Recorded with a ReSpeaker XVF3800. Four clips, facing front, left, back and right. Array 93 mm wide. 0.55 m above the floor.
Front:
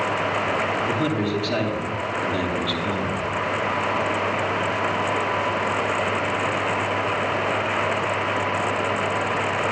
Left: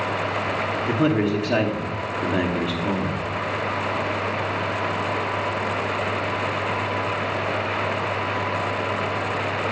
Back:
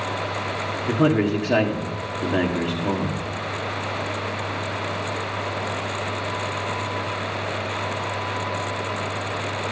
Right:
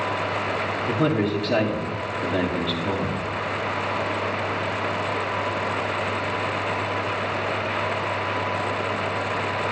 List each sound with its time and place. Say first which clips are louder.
0.9 s a man speaking: left 2 dB, back 3 dB; 155° left, 1.4 m